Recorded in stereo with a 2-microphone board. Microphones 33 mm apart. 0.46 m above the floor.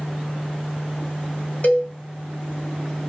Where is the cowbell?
50° left (ahead or behind), 1.9 m.